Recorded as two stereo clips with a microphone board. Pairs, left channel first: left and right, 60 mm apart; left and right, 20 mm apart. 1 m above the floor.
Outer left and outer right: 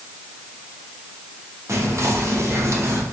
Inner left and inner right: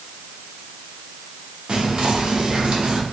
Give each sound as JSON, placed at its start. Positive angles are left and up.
{"t": 1.7, "sound": "whispering", "side_deg": -55, "distance_m": 1.1}